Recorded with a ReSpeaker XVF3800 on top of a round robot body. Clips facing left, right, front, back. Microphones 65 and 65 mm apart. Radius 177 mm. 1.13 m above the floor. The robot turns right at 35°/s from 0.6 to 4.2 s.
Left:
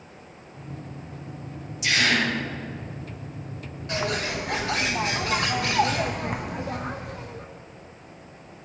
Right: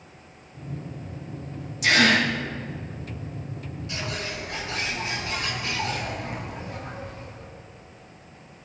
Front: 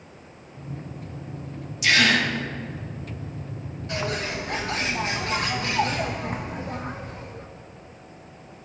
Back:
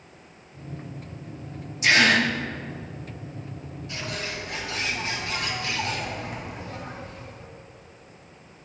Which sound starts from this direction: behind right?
A gasp, at 1.8 s.